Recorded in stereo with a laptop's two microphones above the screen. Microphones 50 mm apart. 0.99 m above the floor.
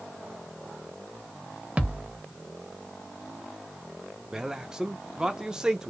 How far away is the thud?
About 1.0 m.